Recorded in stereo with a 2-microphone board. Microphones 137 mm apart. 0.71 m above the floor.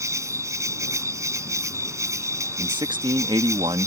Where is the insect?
25° right (ahead or behind).